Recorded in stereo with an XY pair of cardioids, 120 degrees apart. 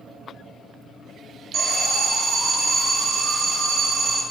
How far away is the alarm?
About 0.8 m.